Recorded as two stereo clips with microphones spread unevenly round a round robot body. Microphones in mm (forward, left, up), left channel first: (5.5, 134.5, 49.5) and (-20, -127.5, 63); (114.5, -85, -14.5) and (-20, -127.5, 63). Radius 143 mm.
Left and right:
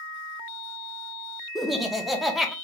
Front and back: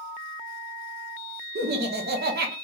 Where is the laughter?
170° left, 0.7 m.